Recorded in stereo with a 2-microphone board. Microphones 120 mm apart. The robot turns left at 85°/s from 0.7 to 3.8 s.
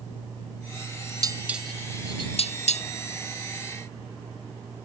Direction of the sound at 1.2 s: 35° right (ahead or behind).